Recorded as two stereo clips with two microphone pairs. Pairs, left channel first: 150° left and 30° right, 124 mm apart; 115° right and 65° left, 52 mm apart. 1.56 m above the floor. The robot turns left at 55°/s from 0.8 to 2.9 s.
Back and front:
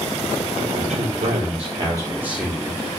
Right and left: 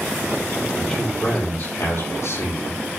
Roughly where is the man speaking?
Ahead right.